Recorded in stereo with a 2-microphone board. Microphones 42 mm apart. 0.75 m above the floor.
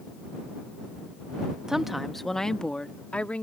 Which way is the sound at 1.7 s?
15° right (ahead or behind).